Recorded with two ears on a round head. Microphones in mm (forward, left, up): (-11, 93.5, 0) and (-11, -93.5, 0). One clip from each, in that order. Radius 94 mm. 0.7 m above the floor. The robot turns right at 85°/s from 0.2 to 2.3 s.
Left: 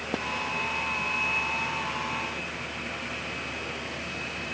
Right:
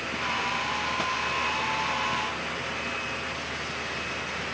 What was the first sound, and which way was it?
Only background noise.